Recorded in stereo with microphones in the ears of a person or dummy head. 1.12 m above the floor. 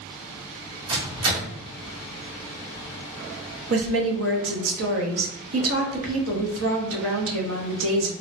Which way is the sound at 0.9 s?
80° right.